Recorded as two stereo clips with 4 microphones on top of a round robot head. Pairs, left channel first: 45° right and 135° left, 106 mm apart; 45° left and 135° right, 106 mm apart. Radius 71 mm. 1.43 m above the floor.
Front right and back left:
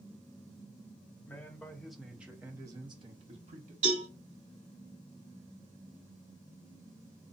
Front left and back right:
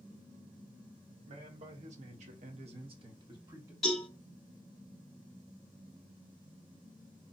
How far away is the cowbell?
About 2.5 m.